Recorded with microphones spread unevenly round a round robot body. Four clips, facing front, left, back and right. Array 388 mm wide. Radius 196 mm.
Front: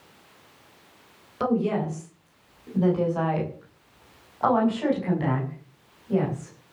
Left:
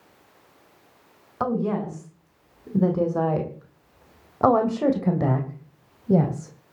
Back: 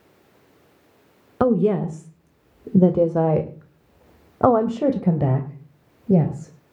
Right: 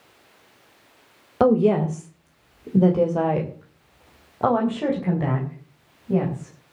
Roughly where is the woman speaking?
Behind right.